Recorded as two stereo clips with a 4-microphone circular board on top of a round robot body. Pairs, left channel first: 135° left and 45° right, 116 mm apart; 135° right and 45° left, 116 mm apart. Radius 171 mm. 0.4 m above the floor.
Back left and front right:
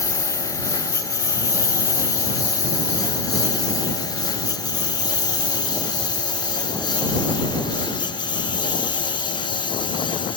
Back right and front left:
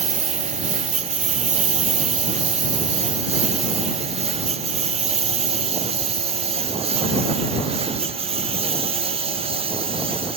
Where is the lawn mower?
70° left; by 10.4 s 85° left.